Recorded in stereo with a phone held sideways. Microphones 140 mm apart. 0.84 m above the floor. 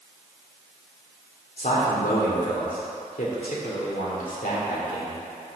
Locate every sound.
1.6 s a man speaking: 80° left, 1.9 m